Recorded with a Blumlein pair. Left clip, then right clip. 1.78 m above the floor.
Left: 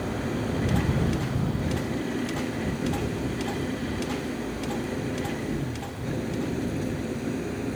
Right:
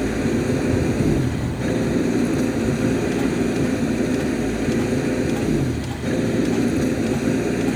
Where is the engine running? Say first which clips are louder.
Right 8 dB; 60° right.